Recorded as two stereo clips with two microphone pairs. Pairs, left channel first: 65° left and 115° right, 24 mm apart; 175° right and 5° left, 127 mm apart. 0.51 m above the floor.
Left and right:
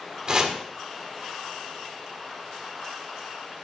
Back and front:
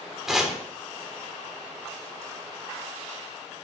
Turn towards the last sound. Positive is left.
turn(degrees=-80)